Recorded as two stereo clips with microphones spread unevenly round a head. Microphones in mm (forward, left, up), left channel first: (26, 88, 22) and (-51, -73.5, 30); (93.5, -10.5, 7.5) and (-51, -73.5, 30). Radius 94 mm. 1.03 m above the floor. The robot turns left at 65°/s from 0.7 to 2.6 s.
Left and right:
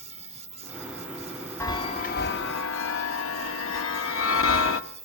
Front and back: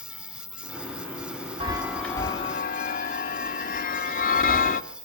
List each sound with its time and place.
0.0 s an insect: 70° right, 5 m; by 5.0 s 165° left, 5 m
1.6 s a chime: 140° left, 1.3 m; by 4.8 s 75° left, 1.3 m